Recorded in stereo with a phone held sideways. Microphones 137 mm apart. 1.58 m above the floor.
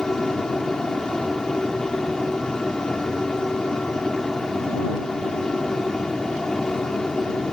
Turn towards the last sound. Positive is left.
turn(degrees=5)  # may be behind; listen again after turning